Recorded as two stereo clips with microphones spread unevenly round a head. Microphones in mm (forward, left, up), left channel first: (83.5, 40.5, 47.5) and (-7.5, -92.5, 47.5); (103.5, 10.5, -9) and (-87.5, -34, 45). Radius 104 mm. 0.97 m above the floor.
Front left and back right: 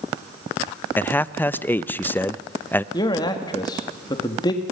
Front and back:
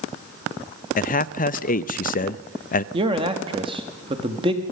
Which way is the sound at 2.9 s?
125° left.